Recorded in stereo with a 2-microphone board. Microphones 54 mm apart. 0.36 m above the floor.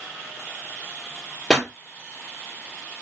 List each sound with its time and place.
1.5 s a pop: 10° left (ahead or behind), 1.6 m